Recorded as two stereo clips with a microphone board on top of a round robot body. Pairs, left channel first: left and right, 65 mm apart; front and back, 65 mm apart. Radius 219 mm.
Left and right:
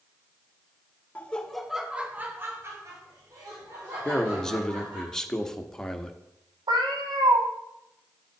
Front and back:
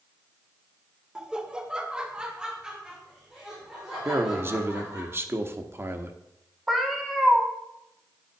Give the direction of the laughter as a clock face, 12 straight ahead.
8 o'clock.